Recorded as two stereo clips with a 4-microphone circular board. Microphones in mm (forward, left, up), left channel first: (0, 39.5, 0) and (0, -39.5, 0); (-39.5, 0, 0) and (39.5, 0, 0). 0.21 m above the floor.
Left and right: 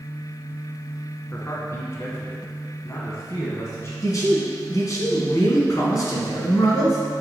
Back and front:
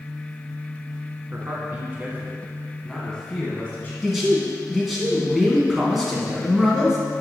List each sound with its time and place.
1.3 s a man speaking: 45° left, 1.8 m; by 3.9 s 125° left, 1.5 m
4.0 s a man speaking: 85° left, 1.9 m